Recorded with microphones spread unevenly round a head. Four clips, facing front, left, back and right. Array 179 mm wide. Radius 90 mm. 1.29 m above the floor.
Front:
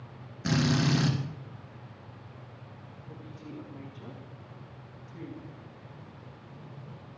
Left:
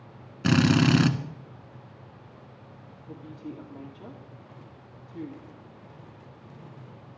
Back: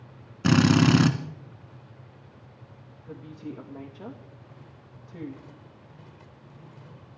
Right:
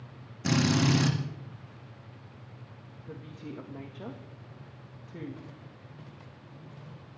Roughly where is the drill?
Behind.